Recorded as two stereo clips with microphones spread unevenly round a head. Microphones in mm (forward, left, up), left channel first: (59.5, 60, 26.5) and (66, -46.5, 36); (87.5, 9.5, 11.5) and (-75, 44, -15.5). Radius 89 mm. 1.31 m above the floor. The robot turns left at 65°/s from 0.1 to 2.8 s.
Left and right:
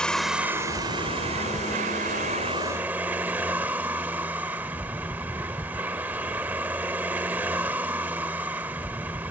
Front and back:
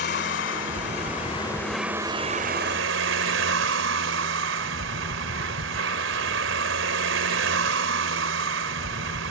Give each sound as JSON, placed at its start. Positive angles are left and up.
{"t": 0.0, "sound": "a vehicle", "azimuth_deg": 10}